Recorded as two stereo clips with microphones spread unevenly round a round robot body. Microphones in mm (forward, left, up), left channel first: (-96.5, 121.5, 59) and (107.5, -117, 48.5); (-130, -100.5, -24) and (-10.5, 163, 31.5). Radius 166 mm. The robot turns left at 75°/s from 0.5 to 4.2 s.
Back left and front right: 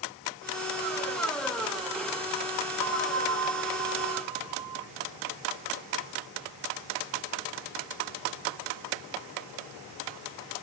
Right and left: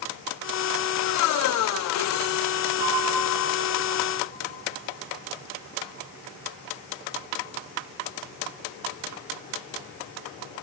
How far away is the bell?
About 1.5 m.